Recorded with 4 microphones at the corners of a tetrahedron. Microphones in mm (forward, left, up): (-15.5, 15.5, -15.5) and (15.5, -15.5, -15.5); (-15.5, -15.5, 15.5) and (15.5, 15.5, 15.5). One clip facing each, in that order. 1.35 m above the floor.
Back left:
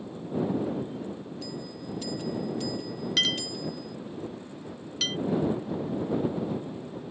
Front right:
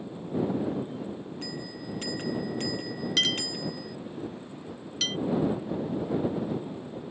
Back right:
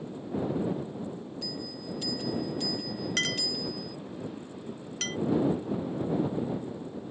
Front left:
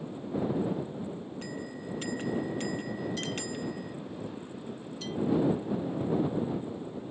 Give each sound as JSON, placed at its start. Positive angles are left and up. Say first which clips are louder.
{"t": 1.4, "sound": "a bell", "louder": "even, even", "azimuth_deg": 0}
{"t": 3.2, "sound": "a clink", "louder": "even, back right 3 dB", "azimuth_deg": -135}